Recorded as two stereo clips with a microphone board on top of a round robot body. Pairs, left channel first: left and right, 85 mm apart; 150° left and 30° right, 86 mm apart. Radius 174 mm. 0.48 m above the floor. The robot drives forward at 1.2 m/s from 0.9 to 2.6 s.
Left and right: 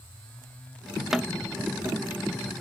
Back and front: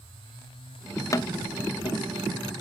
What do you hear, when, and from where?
1.1 s tapping: 175° right, 0.5 m; by 2.0 s straight behind, 1.4 m